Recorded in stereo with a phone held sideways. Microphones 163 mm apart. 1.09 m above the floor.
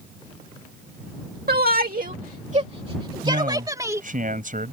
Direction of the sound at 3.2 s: 55° right (ahead or behind).